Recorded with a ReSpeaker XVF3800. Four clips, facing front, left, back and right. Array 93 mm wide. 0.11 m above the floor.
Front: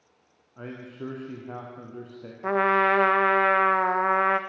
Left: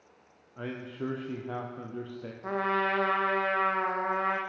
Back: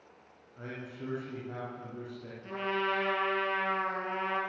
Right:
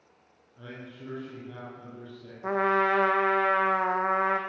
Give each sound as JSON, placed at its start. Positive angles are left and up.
{"t": 0.6, "sound": "a man speaking", "azimuth_deg": 55, "distance_m": 4.5}
{"t": 2.4, "sound": "a trumpet", "azimuth_deg": -15, "distance_m": 2.5}